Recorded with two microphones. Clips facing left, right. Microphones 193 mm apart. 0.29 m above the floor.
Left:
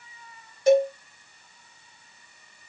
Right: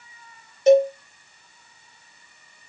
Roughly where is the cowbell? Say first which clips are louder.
Right 4 dB; right.